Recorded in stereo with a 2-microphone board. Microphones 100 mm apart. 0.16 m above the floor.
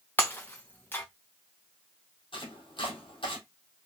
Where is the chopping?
60° left (ahead or behind), 3 m.